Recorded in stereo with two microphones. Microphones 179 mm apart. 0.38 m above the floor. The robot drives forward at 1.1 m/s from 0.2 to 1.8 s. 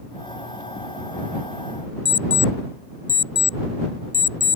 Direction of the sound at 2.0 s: 70° right (ahead or behind).